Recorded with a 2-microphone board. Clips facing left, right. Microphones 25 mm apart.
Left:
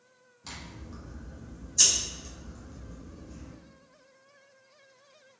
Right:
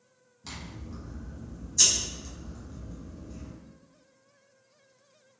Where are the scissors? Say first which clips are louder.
Right 1 dB; centre (ahead or behind), 1.5 m.